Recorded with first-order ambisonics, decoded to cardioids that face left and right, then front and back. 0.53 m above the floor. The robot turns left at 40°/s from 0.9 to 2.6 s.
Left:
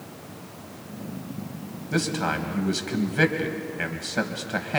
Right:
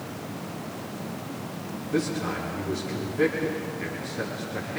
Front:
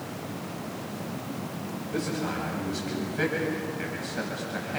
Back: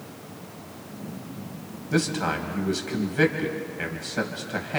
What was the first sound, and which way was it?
A man speaking, 140° left.